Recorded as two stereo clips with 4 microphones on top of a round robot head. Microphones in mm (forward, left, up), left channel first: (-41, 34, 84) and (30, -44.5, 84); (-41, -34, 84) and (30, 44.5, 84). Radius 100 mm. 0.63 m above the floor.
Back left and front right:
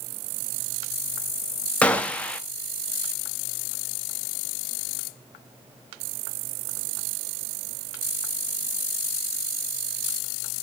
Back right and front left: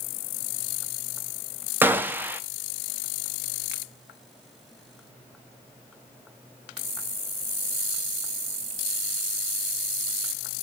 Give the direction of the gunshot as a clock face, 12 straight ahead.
9 o'clock.